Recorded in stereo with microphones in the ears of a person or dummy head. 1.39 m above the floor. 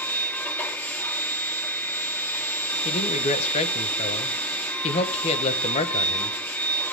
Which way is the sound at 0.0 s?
10° left (ahead or behind).